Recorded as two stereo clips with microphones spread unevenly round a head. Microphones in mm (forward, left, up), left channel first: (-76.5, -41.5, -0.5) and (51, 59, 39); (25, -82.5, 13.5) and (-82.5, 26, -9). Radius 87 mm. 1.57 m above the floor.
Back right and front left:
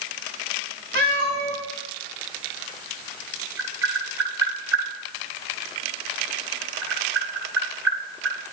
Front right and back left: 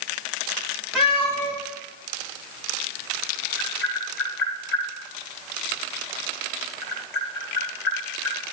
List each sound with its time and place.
0.9 s a cat meowing: 40° left, 5 m
3.6 s tapping: 35° right, 6.5 m